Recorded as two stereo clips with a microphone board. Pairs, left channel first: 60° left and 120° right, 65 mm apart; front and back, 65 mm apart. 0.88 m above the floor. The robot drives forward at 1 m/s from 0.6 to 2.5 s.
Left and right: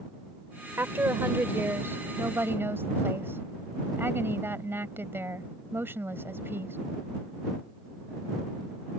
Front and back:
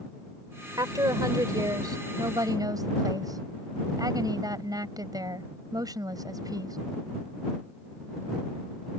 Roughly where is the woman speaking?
Behind.